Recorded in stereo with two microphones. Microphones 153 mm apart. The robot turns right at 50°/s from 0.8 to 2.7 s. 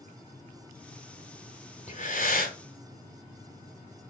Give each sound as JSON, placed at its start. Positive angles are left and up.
{"t": 1.9, "sound": "breathing", "azimuth_deg": 55, "distance_m": 1.6}